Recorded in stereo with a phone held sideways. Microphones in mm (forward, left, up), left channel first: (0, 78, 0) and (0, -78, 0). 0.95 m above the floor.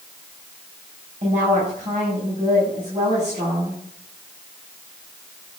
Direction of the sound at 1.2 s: 45° right (ahead or behind).